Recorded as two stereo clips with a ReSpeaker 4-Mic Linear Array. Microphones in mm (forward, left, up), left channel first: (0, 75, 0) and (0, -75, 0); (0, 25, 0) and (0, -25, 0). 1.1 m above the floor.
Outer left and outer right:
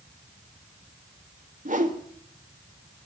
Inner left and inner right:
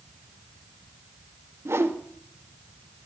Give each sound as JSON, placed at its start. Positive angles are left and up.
{"t": 1.6, "sound": "a whoosh", "side_deg": -60, "distance_m": 1.6}